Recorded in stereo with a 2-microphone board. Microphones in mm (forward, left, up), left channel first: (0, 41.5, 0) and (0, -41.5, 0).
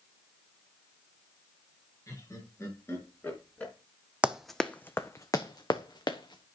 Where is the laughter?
35° left (ahead or behind), 5 m; by 3.7 s 15° left (ahead or behind), 3.5 m.